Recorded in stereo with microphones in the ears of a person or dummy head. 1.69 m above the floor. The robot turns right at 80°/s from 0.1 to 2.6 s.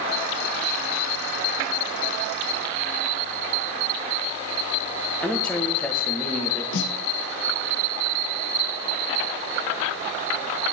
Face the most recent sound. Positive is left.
turn(degrees=65)  # may be behind; listen again after turning